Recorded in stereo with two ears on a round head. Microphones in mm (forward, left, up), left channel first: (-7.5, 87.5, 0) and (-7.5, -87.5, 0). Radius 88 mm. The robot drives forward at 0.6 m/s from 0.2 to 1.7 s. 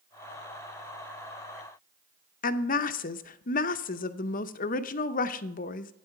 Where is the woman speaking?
45° left (ahead or behind), 0.6 m.